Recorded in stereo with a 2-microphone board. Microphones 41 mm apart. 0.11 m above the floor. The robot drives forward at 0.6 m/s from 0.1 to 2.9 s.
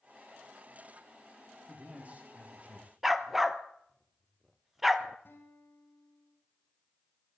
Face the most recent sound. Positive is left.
turn(degrees=55)  # may be behind; listen again after turning